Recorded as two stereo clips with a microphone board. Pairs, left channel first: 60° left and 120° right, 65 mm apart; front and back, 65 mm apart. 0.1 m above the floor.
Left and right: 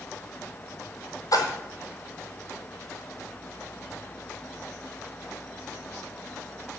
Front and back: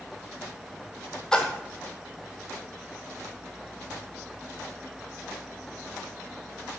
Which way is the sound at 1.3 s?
80° left.